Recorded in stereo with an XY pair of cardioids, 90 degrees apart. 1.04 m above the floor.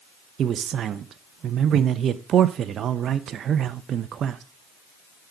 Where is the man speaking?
70° right, 0.6 m.